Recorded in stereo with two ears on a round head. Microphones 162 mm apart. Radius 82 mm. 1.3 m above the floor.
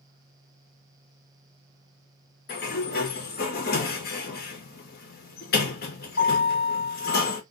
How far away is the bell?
No bell in this recording.